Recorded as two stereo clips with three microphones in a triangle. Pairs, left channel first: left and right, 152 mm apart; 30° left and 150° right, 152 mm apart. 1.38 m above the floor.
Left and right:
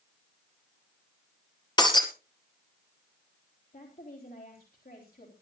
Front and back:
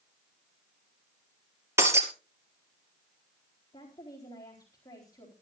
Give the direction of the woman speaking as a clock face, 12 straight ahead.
9 o'clock.